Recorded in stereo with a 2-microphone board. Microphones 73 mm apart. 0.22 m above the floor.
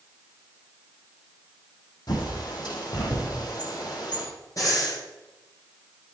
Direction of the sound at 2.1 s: 75° left (ahead or behind).